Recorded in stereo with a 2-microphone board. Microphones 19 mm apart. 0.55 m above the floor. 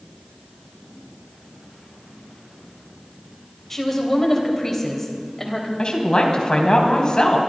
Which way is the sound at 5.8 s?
40° left (ahead or behind).